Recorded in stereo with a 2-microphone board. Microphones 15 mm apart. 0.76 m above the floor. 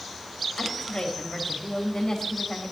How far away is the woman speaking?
About 4.5 m.